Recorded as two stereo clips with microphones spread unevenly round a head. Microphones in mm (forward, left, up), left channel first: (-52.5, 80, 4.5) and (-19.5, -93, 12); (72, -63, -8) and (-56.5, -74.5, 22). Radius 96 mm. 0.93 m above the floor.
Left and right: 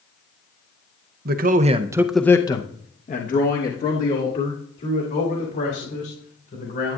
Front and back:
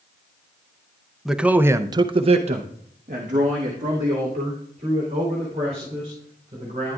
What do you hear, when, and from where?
1.2 s a man speaking: 80° right, 0.8 m; by 7.0 s 125° left, 4 m